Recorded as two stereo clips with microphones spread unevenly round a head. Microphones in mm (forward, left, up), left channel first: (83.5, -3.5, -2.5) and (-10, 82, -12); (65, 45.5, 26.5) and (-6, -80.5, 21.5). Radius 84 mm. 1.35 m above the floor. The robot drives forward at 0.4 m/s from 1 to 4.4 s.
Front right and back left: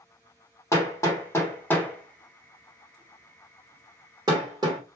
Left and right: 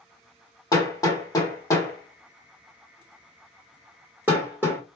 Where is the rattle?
I don't hear a rattle.